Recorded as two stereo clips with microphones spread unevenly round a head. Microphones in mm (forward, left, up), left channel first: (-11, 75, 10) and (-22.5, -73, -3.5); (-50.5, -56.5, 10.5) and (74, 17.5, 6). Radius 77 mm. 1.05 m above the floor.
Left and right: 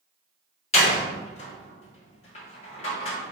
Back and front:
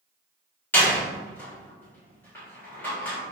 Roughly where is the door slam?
Behind left.